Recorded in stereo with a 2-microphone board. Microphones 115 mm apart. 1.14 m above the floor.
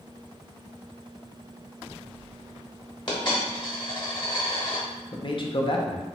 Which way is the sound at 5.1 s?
45° left (ahead or behind).